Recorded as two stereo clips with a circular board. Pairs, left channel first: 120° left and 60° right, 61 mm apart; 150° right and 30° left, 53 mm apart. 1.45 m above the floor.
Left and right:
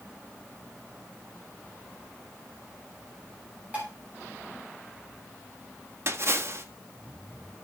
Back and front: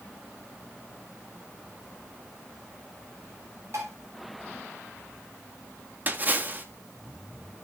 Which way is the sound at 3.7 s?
5° left.